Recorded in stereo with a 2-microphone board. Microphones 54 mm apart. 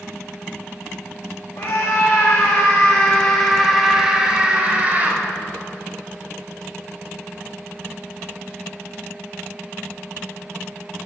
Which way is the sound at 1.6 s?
60° left (ahead or behind).